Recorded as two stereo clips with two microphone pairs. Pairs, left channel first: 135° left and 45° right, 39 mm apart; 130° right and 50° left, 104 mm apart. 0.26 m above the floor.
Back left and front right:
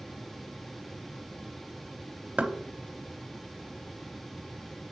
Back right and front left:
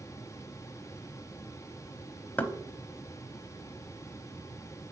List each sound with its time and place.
2.4 s knocking: 60° right, 0.7 m